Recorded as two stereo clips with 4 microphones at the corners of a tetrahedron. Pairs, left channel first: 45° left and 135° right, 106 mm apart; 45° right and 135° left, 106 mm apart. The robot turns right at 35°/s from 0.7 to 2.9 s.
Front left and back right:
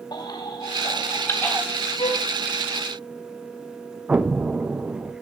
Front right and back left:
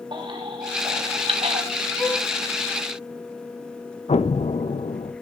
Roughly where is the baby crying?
Left.